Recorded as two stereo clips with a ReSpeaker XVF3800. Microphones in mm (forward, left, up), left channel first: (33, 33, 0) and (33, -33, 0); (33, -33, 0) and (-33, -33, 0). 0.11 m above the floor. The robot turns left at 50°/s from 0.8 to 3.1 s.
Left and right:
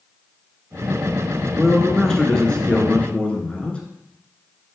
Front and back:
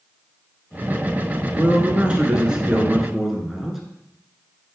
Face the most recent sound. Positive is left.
turn(degrees=100)